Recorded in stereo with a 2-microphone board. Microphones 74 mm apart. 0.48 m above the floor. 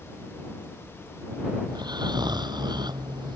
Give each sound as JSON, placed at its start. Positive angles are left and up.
{"t": 1.7, "sound": "snoring", "side_deg": -70}